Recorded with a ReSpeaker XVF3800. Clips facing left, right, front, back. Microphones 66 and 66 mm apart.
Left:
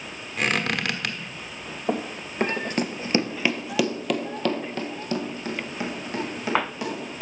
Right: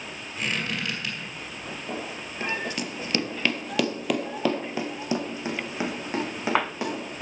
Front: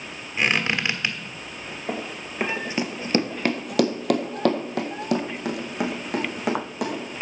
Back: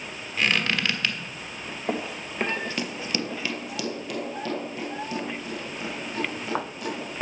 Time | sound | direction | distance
0.4 | a squeak | 65° left | 1.3 m
1.9 | running footsteps | 105° left | 1.1 m